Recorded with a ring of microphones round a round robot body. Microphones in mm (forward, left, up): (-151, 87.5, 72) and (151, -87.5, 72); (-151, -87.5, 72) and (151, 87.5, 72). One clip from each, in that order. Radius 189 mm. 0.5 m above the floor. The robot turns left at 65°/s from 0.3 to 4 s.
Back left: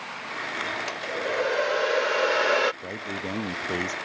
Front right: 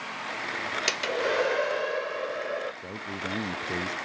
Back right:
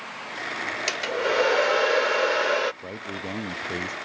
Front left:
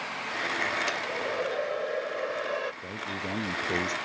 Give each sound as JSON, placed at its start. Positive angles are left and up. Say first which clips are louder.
{"t": 0.9, "sound": "a hair dryer", "louder": "front right 2 dB, back right 5 dB", "azimuth_deg": -85}
{"t": 2.8, "sound": "a man speaking", "louder": "back left 2 dB, back right 1 dB", "azimuth_deg": 175}